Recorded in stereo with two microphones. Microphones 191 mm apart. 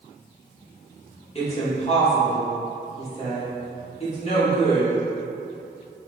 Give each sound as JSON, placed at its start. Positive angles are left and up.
{"t": 1.4, "sound": "a woman speaking", "side_deg": 30, "distance_m": 1.3}